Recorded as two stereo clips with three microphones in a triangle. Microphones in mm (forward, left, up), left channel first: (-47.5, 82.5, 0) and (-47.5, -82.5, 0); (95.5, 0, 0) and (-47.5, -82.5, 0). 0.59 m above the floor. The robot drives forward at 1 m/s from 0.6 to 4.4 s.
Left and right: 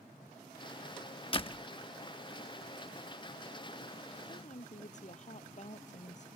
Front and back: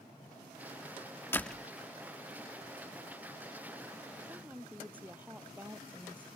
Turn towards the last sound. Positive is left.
turn(degrees=130)